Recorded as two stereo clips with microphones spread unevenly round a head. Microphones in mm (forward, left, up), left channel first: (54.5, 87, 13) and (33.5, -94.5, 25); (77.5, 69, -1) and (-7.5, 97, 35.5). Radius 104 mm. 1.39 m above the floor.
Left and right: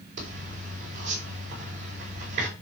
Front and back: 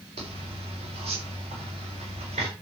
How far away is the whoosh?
I don't hear a whoosh.